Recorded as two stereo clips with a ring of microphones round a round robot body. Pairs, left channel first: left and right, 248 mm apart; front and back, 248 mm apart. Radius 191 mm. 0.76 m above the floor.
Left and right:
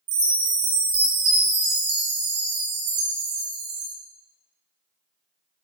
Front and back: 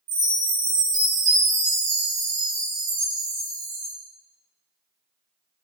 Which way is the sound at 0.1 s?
120° right.